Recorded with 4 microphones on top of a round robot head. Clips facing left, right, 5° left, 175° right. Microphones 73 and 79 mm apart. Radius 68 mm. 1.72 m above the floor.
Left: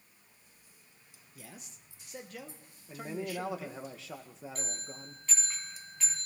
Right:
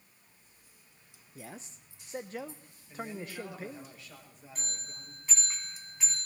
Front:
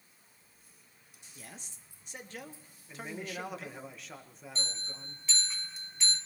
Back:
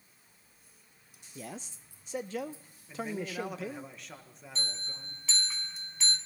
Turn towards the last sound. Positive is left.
turn(degrees=-170)